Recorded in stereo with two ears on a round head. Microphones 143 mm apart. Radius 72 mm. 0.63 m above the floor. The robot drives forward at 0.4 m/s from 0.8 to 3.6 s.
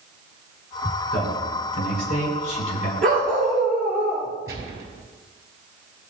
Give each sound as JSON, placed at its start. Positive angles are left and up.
{"t": 1.1, "sound": "a man speaking", "side_deg": 55, "distance_m": 4.0}
{"t": 3.0, "sound": "a dog barking", "side_deg": 5, "distance_m": 5.0}
{"t": 4.5, "sound": "a gunshot", "side_deg": -20, "distance_m": 5.0}